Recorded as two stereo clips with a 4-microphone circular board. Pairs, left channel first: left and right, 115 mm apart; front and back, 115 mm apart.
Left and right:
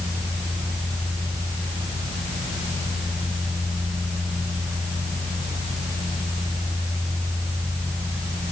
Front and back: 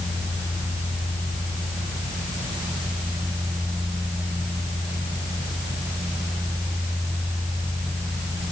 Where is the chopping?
I don't hear chopping.